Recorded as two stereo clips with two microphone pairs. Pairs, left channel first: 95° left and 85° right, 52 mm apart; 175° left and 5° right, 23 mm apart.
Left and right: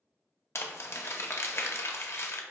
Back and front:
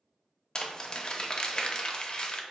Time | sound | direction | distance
0.6 | crumpling | 115° left | 0.5 m